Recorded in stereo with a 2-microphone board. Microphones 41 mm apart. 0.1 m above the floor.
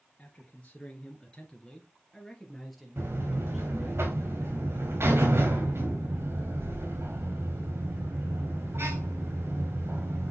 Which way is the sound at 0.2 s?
35° left (ahead or behind).